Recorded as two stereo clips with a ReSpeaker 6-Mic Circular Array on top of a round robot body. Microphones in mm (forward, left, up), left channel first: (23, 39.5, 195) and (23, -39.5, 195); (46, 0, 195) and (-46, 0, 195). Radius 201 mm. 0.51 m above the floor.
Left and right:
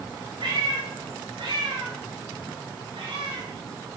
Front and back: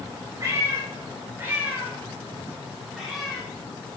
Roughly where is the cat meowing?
Behind right.